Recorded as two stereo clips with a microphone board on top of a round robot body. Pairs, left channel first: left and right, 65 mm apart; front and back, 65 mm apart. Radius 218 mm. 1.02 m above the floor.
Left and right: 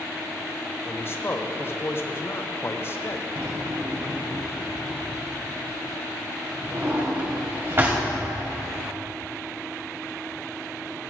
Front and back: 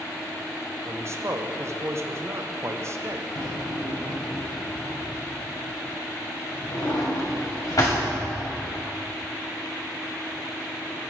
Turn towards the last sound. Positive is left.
turn(degrees=-35)